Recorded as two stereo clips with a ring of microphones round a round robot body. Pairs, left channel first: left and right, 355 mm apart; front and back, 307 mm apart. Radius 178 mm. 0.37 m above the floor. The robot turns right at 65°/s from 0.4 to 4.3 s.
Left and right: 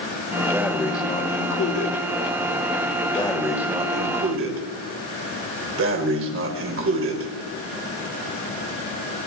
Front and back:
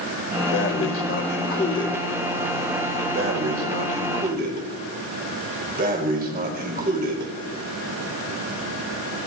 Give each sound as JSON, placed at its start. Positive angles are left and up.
{"t": 0.5, "sound": "breathing", "azimuth_deg": -15, "distance_m": 1.9}